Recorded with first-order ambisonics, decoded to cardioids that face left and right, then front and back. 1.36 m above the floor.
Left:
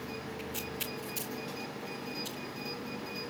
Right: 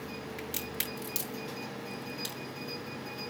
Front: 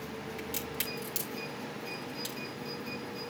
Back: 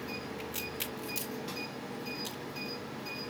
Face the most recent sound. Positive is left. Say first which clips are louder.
# right 3 dB, front 1 dB
turn(degrees=-60)